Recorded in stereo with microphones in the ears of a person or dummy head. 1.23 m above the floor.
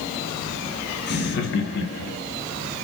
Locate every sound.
1.1 s laughter: 50° left (ahead or behind), 1.2 m; by 2.2 s 55° left (ahead or behind), 0.8 m